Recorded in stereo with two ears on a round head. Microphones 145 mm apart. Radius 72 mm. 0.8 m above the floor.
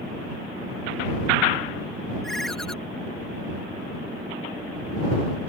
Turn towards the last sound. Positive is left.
turn(degrees=0)  # may be behind; listen again after turning